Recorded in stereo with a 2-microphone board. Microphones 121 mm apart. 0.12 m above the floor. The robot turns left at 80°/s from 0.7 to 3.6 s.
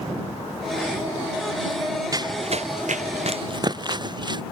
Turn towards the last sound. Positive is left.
turn(degrees=-40)  # may be behind; listen again after turning